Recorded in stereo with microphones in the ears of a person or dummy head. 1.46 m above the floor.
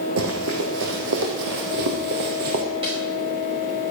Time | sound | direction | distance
0.2 | running footsteps | 60° right (ahead or behind) | 3.5 m
2.8 | a snare drum | 25° right (ahead or behind) | 5 m